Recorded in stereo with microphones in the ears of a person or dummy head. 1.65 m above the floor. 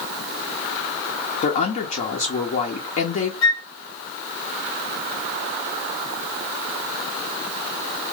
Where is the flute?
20° left (ahead or behind), 1.5 m.